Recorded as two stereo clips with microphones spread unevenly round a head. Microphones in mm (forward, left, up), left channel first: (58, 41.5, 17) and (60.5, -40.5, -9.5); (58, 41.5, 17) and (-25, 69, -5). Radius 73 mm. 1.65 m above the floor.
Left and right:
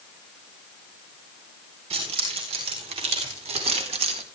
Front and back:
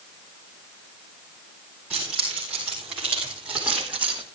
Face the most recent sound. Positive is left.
turn(degrees=-110)